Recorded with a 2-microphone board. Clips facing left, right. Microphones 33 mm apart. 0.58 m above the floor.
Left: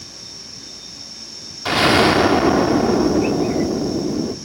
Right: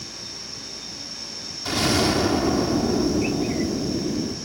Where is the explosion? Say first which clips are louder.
Left 7 dB; 45° left (ahead or behind), 0.8 m.